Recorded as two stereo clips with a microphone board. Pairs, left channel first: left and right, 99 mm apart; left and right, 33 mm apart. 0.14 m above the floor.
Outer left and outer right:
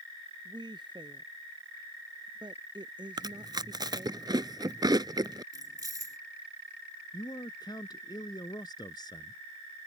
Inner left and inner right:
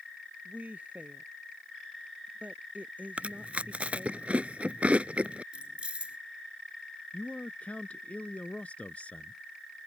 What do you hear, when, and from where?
0.5 s a woman speaking: 50° right (ahead or behind)
3.2 s chewing: 45° right (ahead or behind)
5.5 s keys jangling: 40° right (ahead or behind)
7.1 s a man speaking: 45° left (ahead or behind)